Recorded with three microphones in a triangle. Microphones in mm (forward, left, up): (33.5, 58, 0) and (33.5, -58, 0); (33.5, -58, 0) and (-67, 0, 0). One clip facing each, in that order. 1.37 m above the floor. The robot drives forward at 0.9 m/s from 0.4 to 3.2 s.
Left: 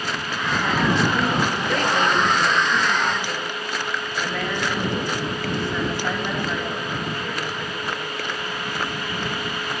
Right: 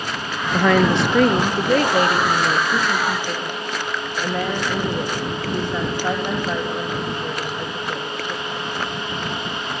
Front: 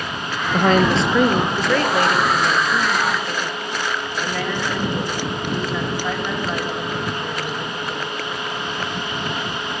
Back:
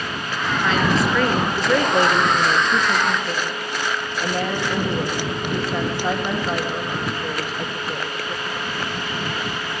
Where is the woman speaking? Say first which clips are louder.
Right 6 dB, front 4 dB; 65° right, 0.9 m; by 8.9 s 160° right, 2 m.